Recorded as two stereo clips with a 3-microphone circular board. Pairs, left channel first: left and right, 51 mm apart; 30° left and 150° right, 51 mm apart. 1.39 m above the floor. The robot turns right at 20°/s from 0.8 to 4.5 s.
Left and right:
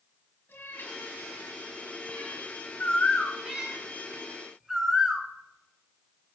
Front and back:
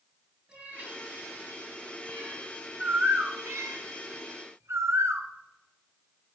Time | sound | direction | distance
0.5 | a cat meowing | 135° left | 4.5 m
2.8 | a bird | 155° left | 1.0 m